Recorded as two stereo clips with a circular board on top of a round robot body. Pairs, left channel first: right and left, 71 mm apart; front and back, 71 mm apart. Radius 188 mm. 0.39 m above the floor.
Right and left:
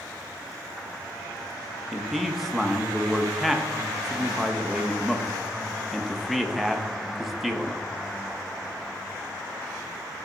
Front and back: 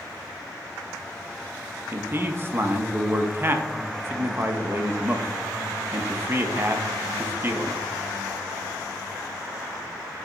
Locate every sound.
1.9 s a man speaking: straight behind, 0.9 m